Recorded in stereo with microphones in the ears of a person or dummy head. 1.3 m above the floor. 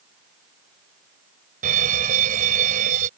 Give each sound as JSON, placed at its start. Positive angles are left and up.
{"t": 1.6, "sound": "an alarm", "side_deg": -50}